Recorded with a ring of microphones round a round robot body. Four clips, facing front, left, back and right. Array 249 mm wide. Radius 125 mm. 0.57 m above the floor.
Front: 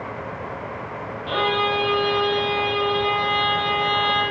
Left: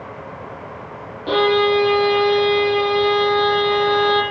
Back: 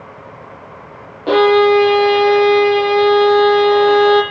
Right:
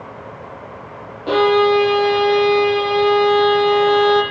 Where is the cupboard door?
I don't hear a cupboard door.